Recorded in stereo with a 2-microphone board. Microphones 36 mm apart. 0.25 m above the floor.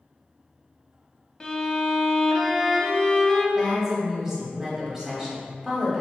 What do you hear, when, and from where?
1.4 s a violin: 20° left (ahead or behind), 0.5 m
3.5 s a woman speaking: 10° right (ahead or behind), 1.1 m